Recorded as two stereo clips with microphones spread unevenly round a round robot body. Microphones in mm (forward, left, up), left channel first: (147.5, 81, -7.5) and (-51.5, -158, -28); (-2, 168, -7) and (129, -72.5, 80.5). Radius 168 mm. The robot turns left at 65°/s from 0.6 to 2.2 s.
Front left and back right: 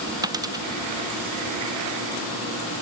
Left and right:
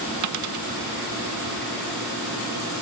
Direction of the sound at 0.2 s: 50° right.